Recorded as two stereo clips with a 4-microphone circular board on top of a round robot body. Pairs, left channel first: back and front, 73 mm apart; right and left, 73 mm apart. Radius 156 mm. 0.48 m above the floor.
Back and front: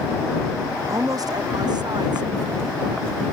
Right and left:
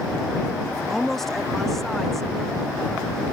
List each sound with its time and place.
0.9 s a woman speaking: 5° right